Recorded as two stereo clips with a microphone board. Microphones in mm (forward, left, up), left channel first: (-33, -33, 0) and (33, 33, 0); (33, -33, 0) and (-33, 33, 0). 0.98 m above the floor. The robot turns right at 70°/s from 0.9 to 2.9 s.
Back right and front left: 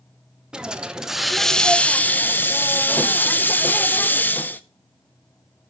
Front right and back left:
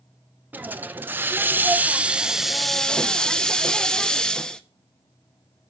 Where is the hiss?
110° left, 0.7 m; by 4.6 s 110° right, 0.7 m.